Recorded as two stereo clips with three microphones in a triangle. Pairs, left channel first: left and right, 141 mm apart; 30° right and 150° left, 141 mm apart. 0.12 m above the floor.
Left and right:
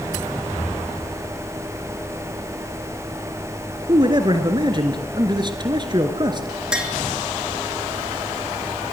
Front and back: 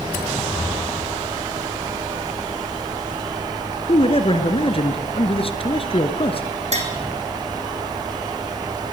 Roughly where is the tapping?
Behind.